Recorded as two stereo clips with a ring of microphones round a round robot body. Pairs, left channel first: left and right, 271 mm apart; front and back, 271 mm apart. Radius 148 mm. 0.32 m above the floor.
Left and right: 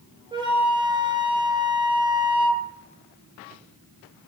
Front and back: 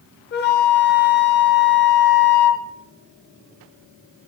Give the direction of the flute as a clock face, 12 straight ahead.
1 o'clock.